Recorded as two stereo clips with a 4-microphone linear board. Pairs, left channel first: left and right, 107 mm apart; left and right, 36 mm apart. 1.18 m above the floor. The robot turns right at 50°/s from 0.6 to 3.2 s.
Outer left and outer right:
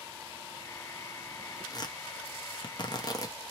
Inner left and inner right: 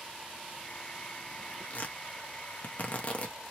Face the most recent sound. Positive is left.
turn(degrees=35)  # may be behind; listen again after turning